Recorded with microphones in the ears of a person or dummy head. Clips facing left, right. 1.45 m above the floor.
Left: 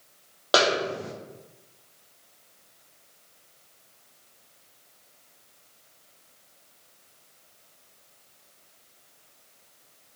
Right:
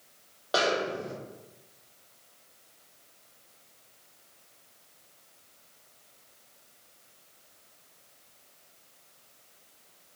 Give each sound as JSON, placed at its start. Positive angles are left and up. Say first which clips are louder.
{"t": 0.5, "sound": "a snare drum", "louder": "left 4 dB", "side_deg": 70, "distance_m": 0.5}